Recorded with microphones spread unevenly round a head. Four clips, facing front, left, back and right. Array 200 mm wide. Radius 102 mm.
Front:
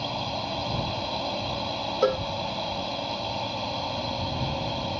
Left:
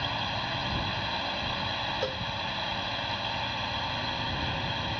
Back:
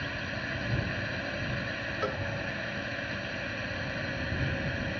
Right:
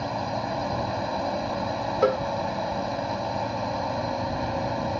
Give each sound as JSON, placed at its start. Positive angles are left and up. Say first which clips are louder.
{"t": 0.0, "sound": "a drone", "louder": "right 5 dB, front 6 dB", "azimuth_deg": -90}
{"t": 2.0, "sound": "a cowbell", "louder": "right 16 dB, front 11 dB", "azimuth_deg": -65}